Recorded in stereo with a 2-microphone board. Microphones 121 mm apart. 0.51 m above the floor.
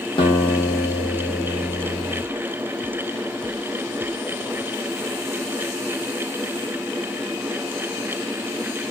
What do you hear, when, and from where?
0.2 s a guitar: 45° left (ahead or behind), 0.8 m